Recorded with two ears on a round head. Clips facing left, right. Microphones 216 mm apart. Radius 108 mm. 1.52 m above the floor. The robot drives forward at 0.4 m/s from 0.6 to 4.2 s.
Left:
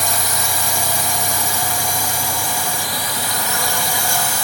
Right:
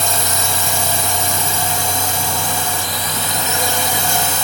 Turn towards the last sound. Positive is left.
turn(degrees=-20)  # may be behind; listen again after turning